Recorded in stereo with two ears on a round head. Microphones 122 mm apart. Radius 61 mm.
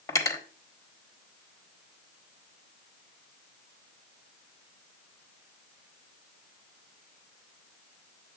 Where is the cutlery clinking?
25° left (ahead or behind), 1.0 m.